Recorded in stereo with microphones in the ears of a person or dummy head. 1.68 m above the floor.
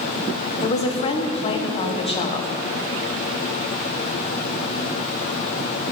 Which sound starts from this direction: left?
A woman speaking, at 0.6 s.